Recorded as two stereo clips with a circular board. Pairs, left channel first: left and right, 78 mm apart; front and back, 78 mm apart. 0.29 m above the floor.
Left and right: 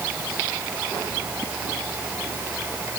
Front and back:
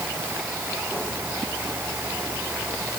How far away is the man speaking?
I don't hear a man speaking.